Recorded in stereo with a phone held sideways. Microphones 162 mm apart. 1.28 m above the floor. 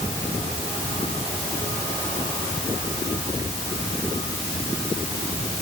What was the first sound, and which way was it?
Only background noise.